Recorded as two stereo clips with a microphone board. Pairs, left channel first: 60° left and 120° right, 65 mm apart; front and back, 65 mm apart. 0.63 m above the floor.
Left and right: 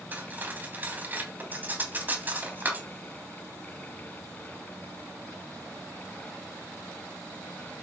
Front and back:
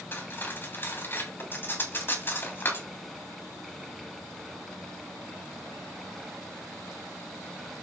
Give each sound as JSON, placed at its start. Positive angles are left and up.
{"t": 0.1, "sound": "cutlery clinking", "azimuth_deg": -55, "distance_m": 2.5}